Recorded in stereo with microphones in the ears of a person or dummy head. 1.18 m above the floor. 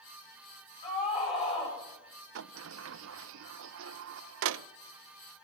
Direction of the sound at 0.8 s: 25° left (ahead or behind).